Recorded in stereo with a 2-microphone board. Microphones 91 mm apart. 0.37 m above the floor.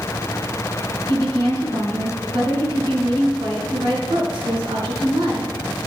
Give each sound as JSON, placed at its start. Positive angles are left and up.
{"t": 1.1, "sound": "a woman speaking", "side_deg": -65, "distance_m": 3.5}